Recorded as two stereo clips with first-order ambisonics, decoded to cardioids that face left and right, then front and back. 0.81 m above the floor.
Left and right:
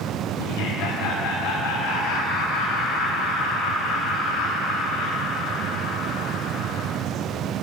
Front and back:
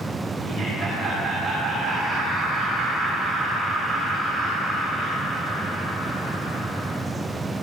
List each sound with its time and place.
0.4 s laughter: 95° left, 4.5 m